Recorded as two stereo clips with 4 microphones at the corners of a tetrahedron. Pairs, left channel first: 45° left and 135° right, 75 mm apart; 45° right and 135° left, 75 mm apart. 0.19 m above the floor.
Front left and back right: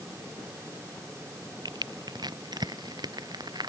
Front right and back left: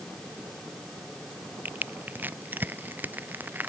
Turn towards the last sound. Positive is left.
turn(degrees=-160)